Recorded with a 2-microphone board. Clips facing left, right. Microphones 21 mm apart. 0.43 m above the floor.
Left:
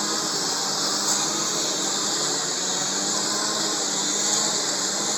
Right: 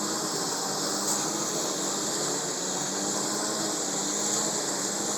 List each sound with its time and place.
0.0 s a lawn mower: 40° left (ahead or behind)